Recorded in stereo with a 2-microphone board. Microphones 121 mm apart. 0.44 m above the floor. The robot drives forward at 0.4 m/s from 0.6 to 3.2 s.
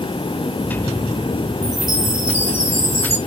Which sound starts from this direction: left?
A chime, at 1.6 s.